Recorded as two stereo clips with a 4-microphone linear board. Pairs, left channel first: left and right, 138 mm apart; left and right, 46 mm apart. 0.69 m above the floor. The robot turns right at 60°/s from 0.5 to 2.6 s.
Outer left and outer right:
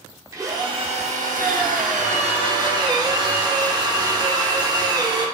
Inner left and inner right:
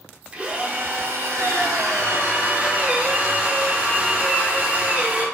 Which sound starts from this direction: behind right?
A drill, at 0.3 s.